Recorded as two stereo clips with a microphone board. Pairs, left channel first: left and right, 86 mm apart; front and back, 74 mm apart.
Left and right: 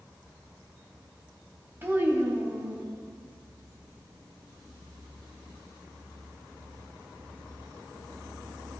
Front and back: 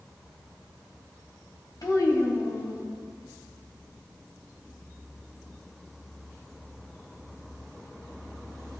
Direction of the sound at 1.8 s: 30° right.